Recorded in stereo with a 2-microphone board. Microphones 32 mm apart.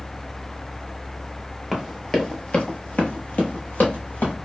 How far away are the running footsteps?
About 0.9 m.